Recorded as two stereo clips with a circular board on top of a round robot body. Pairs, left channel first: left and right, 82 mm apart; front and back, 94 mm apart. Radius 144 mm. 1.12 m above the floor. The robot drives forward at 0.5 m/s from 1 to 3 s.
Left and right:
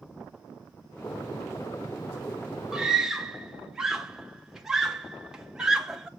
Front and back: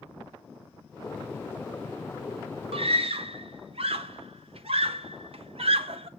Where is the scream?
175° right, 1.3 m.